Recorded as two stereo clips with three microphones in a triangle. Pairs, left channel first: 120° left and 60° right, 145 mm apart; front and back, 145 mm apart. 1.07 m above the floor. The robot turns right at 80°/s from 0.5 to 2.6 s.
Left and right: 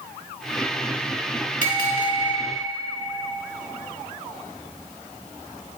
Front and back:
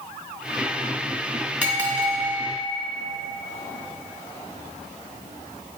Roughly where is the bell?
Left.